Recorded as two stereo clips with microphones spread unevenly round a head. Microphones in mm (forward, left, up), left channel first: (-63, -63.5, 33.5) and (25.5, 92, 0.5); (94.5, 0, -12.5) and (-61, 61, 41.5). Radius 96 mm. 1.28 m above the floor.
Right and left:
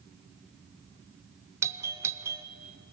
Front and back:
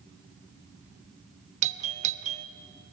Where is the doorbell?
110° left, 0.6 m.